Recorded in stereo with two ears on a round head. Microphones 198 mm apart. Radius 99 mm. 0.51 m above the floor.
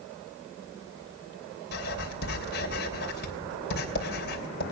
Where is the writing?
50° left (ahead or behind), 3 m.